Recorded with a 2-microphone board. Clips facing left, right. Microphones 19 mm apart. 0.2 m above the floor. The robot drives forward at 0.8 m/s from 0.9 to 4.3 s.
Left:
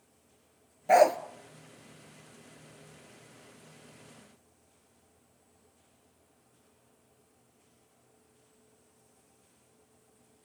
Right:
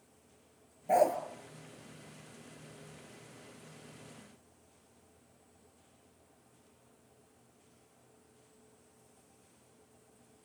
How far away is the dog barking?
About 1.0 m.